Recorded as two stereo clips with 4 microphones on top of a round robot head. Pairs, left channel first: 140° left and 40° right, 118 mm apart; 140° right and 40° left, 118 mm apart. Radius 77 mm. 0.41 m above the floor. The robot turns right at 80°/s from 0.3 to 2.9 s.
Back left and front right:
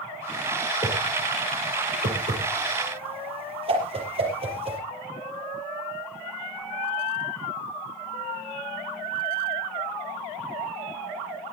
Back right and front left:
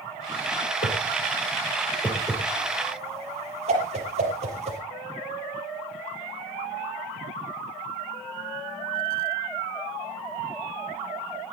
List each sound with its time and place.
0.8 s a whoosh: 160° right, 6 m; by 4.8 s 5° left, 6 m